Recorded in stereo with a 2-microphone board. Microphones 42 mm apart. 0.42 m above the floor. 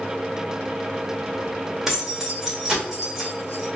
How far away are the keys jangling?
About 1.0 m.